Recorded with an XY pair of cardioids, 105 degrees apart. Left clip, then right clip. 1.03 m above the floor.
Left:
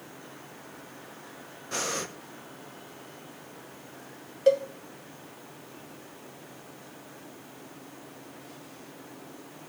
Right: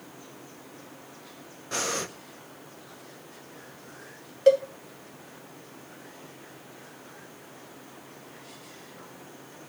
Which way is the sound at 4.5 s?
20° right.